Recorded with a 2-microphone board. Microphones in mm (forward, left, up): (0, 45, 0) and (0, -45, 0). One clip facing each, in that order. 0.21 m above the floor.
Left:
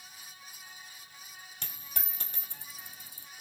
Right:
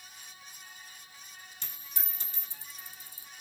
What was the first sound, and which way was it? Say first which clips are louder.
A dropped coin: left 3 dB; 65° left (ahead or behind).